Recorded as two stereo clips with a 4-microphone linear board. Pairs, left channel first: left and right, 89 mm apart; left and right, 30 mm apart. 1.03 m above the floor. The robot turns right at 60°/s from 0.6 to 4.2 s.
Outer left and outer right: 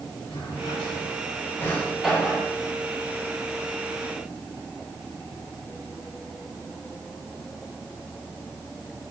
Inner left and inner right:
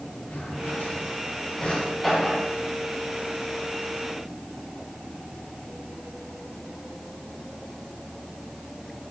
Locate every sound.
0.3 s a drawer: 85° left, 6.5 m; by 2.5 s 30° right (ahead or behind), 6.5 m